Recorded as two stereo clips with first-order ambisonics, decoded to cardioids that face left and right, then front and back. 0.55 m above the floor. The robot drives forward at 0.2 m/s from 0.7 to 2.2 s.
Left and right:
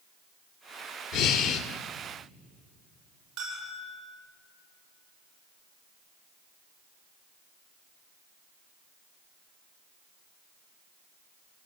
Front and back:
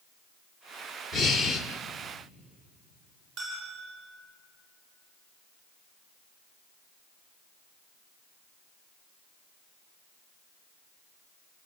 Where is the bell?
155° right, 8.5 m.